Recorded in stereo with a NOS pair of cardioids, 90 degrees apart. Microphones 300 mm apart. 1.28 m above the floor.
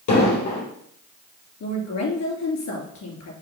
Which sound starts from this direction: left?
An explosion, at 0.1 s.